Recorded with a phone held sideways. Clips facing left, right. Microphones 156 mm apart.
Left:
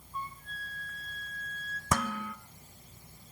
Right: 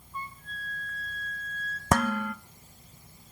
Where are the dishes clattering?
65° right (ahead or behind), 0.7 m.